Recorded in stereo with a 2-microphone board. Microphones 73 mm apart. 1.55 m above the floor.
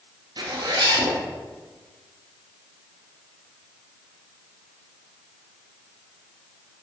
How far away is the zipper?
About 0.5 m.